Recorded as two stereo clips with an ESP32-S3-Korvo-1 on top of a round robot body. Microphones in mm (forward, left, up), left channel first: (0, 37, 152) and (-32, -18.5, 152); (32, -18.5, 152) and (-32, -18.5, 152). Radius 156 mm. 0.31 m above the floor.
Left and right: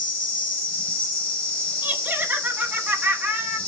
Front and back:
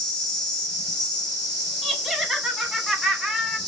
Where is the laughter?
100° right, 1.2 m.